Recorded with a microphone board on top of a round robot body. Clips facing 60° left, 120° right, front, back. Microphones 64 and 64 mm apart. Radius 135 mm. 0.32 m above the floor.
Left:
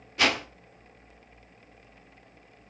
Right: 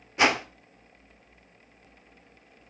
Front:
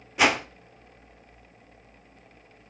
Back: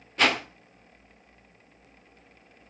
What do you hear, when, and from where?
0.2 s a whoosh: 70° right, 1.7 m